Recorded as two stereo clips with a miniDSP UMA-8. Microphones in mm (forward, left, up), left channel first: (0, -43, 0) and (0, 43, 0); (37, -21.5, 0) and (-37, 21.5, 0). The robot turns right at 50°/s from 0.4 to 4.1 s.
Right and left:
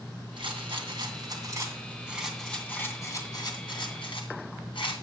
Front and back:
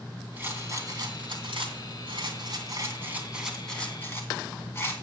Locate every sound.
0.4 s a rattle: 85° left, 2.5 m; by 5.0 s 90° right, 2.5 m